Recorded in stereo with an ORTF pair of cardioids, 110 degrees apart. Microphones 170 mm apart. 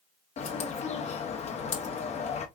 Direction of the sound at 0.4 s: 40° left.